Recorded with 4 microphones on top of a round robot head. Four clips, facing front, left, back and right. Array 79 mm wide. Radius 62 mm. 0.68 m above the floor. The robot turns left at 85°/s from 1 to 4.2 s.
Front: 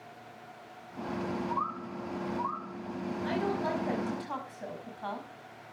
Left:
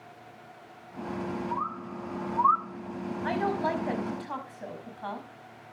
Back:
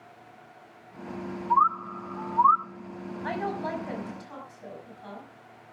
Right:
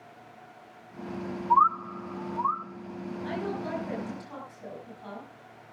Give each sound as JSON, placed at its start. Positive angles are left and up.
{"t": 1.5, "sound": "a bird", "azimuth_deg": -120, "distance_m": 0.7}
{"t": 3.2, "sound": "a woman speaking", "azimuth_deg": 130, "distance_m": 5.5}